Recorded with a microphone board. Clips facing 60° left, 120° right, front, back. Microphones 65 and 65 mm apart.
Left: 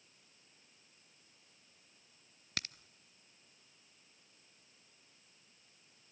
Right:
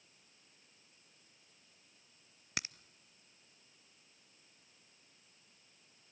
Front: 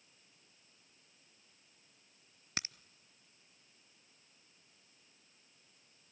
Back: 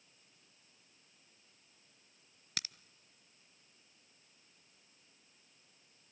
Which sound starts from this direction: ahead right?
A crack, at 2.6 s.